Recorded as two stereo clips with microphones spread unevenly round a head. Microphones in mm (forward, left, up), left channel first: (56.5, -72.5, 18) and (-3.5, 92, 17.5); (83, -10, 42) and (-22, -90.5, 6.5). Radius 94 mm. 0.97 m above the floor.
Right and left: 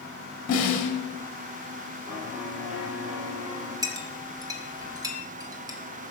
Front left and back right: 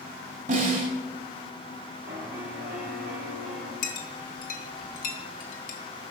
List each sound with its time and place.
0.5 s a snare drum: 120° right, 1.7 m
2.1 s a piano: 165° right, 1.9 m
3.8 s a clink: 40° left, 0.9 m